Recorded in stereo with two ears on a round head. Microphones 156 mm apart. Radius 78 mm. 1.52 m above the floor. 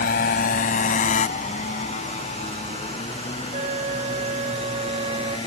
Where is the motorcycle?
55° left (ahead or behind); by 5.5 s 25° left (ahead or behind).